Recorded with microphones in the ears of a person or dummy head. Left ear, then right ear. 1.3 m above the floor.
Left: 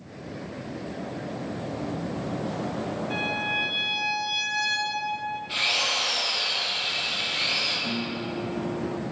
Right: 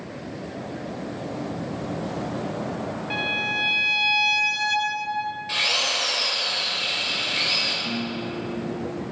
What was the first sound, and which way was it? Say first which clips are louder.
A violin: right 3 dB; 55° right (ahead or behind).